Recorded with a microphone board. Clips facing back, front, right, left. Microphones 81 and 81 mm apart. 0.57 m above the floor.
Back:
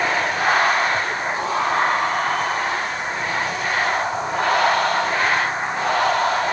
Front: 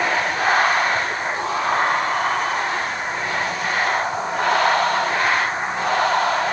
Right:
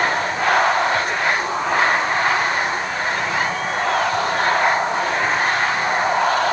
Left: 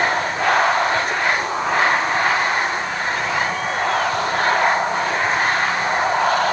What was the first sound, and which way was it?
Only background noise.